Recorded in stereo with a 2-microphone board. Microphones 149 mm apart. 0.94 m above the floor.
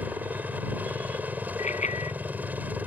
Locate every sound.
0.0 s a helicopter: 10° right (ahead or behind)
1.6 s a bicycle bell: 55° left (ahead or behind)